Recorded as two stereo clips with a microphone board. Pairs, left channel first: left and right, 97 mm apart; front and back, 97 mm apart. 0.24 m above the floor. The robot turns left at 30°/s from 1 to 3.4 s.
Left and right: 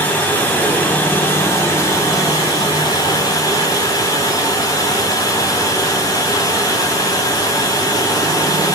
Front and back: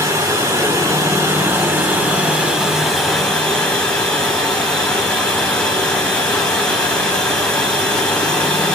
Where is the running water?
150° left, 1.0 m; by 8.8 s 75° left, 1.0 m.